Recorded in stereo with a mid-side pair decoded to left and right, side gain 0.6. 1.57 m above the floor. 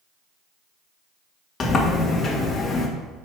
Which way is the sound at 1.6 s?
35° left.